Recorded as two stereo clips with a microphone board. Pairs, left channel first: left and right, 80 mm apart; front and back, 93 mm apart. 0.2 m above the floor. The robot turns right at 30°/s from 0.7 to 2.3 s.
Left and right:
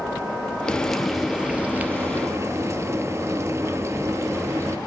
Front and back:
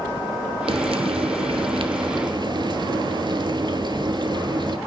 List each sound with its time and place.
0.7 s frying: 170° left, 0.6 m; by 4.8 s 145° right, 0.6 m